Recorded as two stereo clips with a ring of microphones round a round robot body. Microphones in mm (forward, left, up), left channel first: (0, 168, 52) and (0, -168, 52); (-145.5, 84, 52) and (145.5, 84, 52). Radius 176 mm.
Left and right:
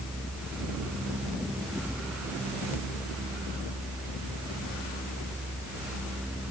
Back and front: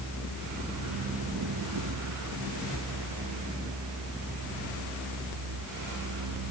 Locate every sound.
Only background noise.